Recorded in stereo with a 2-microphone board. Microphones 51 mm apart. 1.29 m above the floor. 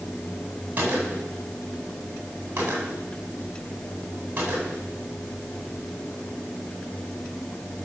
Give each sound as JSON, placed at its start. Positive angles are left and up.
{"t": 0.8, "sound": "a gunshot", "side_deg": -35, "distance_m": 9.5}